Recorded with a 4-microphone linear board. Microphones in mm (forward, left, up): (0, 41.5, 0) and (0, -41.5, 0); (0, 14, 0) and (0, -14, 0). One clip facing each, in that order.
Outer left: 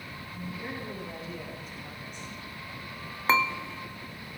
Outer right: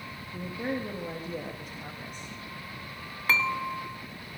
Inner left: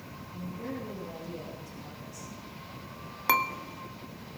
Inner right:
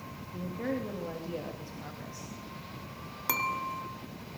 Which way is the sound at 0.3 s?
65° right (ahead or behind).